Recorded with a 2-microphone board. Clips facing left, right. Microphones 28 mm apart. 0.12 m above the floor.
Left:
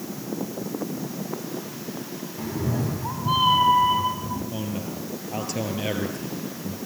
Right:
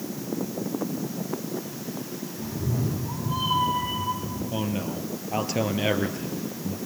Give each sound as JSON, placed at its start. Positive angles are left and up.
{"t": 2.4, "sound": "a cat meowing", "side_deg": 80, "distance_m": 6.5}
{"t": 4.5, "sound": "a man speaking", "side_deg": -15, "distance_m": 3.0}